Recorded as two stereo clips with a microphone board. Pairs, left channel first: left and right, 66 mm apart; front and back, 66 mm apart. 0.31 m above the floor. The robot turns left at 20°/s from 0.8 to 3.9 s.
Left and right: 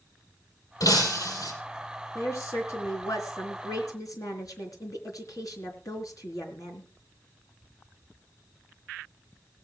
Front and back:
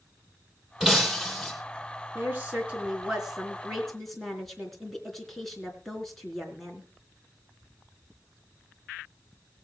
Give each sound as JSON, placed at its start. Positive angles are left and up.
{"t": 0.8, "sound": "breaking glass", "azimuth_deg": 100, "distance_m": 4.5}
{"t": 2.1, "sound": "a woman speaking", "azimuth_deg": 125, "distance_m": 3.5}